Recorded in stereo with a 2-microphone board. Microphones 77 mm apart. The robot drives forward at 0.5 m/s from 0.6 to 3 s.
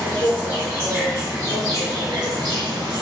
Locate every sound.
0.0 s an insect: 30° right (ahead or behind), 1.3 m; by 3.0 s 75° right (ahead or behind), 0.7 m